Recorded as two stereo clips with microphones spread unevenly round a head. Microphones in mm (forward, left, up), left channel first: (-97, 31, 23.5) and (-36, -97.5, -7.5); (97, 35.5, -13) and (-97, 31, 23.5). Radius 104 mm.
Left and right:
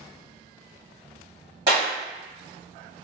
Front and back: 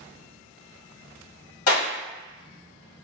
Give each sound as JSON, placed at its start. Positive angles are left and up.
{"t": 1.7, "sound": "a clap", "azimuth_deg": 10, "distance_m": 1.6}